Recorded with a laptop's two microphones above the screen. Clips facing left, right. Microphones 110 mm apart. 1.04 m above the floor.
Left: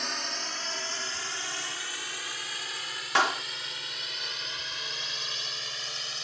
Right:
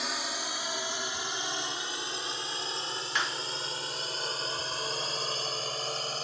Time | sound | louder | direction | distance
0.0 | a drone | right 1 dB | 5° right (ahead or behind) | ?
3.1 | a clap | left 9 dB | 85° left | ?